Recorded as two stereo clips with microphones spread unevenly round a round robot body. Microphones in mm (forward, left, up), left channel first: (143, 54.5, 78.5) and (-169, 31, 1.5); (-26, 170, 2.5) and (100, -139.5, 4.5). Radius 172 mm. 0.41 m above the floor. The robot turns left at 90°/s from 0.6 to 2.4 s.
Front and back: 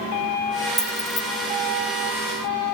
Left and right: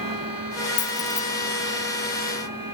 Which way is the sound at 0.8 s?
120° left.